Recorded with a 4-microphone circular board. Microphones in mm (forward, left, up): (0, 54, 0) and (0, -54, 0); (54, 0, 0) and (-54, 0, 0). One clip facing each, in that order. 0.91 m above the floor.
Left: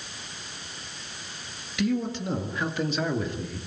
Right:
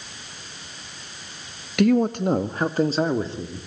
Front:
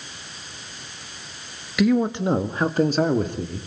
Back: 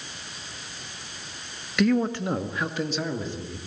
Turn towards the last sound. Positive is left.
turn(degrees=-25)